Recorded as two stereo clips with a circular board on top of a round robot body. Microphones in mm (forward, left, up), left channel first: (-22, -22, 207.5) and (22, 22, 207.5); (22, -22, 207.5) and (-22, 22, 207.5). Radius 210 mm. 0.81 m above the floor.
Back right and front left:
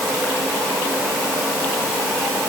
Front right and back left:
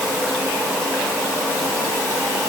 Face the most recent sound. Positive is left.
No sound to turn to.